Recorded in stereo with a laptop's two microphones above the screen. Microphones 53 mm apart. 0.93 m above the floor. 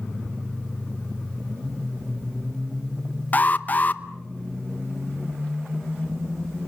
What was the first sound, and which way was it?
An alarm, 35° left (ahead or behind).